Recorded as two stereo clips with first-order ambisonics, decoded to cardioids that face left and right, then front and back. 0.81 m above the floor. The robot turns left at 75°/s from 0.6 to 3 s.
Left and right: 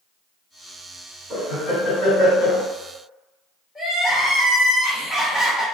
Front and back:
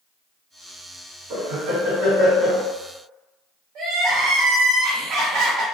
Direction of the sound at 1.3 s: 160° right.